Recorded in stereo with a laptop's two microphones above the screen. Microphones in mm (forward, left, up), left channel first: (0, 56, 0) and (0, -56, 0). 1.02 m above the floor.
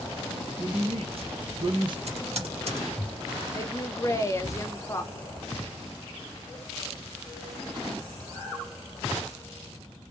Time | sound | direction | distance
0.6 | a woman speaking | 65° right (ahead or behind) | 1.3 m
2.1 | typing on a keyboard | 65° right (ahead or behind) | 1.8 m
3.5 | a woman speaking | 25° left (ahead or behind) | 0.7 m